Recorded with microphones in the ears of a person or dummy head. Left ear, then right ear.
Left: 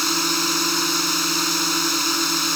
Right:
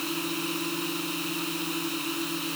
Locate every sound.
0.0 s a drone: 50° left (ahead or behind)